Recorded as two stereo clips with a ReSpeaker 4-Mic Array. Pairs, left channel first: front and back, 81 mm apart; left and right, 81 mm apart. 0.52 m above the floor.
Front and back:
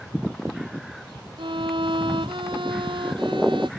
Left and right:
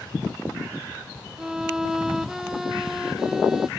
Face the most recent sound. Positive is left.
turn(degrees=-175)